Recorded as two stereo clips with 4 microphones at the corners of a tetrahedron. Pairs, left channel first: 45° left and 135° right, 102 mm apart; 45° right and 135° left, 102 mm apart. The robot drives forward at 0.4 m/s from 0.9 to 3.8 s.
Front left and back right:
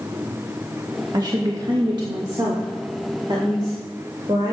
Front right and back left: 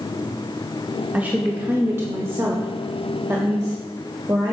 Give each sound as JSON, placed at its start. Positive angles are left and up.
{"t": 1.1, "sound": "a woman speaking", "azimuth_deg": -160, "distance_m": 0.8}